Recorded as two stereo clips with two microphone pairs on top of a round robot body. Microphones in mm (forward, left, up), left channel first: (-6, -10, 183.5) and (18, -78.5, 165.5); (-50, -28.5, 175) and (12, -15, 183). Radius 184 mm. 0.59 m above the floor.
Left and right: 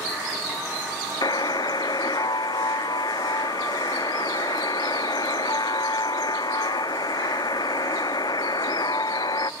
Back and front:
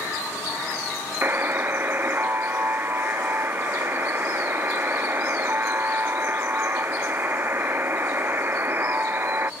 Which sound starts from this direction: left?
A buzzer, at 1.2 s.